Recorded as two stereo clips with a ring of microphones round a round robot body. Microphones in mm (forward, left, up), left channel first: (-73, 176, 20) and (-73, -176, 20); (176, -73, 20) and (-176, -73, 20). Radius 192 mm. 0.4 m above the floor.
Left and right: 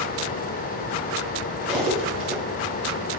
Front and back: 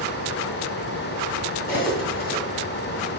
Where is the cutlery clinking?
45° right, 2 m.